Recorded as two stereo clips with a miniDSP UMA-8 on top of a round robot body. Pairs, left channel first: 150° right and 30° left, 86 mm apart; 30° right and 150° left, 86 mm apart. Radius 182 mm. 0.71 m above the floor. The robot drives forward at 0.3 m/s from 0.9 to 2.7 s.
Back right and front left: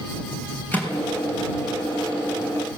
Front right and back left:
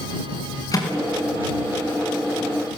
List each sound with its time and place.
0.7 s a microwave: 80° right, 6.5 m; by 2.8 s 85° right, 6.5 m